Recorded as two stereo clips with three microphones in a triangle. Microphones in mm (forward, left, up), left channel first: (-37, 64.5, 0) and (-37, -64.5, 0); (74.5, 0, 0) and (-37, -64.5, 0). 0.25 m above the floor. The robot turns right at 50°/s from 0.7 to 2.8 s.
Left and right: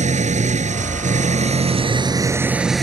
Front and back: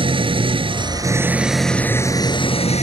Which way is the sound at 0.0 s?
105° right.